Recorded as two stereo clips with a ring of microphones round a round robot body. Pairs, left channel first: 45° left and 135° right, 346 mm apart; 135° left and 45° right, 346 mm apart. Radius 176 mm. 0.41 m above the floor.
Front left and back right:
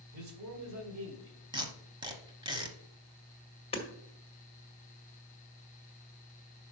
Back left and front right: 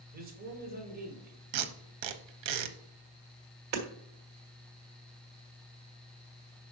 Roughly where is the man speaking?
Right.